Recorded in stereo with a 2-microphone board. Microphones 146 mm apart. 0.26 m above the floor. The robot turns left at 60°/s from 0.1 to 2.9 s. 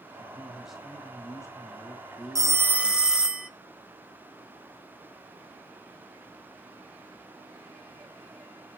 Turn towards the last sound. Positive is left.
turn(degrees=-170)